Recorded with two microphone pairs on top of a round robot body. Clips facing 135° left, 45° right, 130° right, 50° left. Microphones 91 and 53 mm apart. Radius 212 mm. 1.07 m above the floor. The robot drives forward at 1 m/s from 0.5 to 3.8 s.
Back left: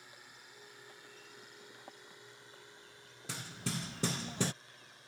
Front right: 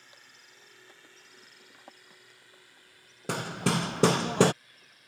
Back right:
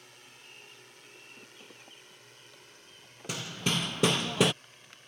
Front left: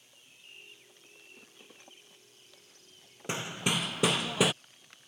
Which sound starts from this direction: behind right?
A drone, at 0.0 s.